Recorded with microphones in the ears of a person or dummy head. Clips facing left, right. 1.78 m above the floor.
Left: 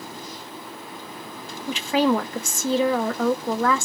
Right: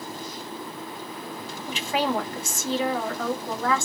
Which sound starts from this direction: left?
A woman speaking, at 1.7 s.